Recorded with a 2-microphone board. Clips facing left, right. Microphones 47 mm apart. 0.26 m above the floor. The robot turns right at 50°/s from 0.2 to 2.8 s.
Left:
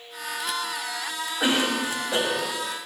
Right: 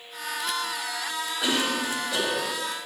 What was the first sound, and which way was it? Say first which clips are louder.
A cough: left 3 dB; 85° left.